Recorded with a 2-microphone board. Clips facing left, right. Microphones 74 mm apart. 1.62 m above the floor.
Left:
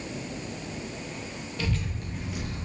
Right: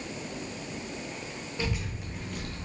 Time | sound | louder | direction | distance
1.6 | a child speaking | left 2 dB | 25° right (ahead or behind) | 0.7 m